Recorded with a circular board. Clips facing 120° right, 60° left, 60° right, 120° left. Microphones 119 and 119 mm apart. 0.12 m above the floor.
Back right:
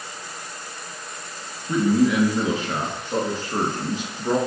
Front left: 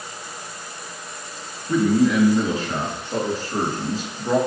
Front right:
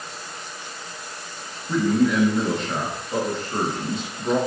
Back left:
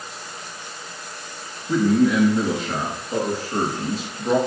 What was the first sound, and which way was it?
A man speaking, 165° right.